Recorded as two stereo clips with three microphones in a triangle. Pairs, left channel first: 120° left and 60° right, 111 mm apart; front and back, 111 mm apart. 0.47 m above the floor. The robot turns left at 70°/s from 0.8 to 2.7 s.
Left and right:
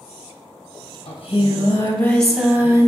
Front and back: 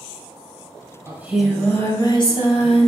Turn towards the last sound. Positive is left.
turn(degrees=0)